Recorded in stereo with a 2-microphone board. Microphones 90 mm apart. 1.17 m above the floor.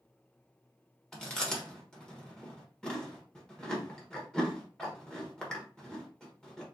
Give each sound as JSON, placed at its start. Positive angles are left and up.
{"t": 1.1, "sound": "chewing", "side_deg": 10, "distance_m": 1.2}